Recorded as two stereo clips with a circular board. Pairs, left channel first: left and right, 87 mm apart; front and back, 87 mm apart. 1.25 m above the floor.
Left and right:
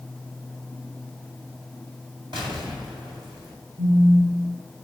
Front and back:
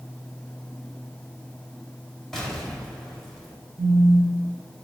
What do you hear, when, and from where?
2.3 s an explosion: 85° right, 2.5 m
3.8 s a phone buzzing: 95° right, 1.7 m